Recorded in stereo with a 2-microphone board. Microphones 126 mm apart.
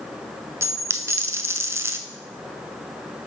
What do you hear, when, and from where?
0.6 s a dropped coin: 20° right (ahead or behind), 0.7 m